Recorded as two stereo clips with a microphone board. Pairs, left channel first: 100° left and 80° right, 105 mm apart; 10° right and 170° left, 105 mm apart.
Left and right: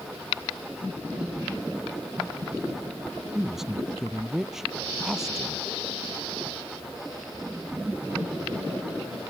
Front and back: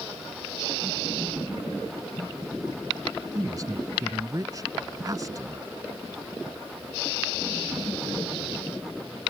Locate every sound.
3.4 s a woman speaking: 165° right